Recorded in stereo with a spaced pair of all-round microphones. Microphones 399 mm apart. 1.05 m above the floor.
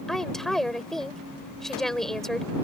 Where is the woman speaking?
Centre (ahead or behind).